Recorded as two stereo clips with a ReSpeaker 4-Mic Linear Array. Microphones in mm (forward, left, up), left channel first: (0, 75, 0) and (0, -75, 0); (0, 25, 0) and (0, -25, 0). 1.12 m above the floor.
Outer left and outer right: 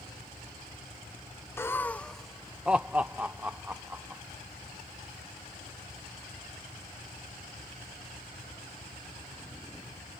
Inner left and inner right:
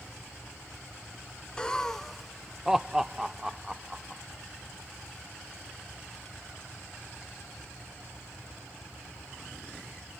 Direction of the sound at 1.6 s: 15° left (ahead or behind).